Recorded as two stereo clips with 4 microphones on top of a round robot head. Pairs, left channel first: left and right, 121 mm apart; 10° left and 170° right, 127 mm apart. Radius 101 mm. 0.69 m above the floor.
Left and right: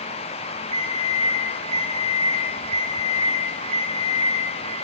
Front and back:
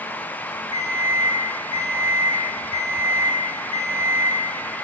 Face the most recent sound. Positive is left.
turn(degrees=-130)